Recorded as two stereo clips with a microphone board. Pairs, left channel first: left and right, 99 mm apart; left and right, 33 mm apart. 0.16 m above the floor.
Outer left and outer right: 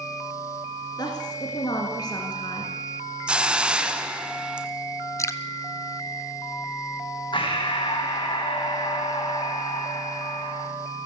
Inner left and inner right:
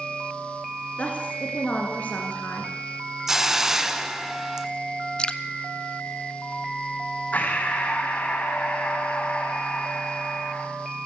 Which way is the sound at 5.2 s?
30° left (ahead or behind).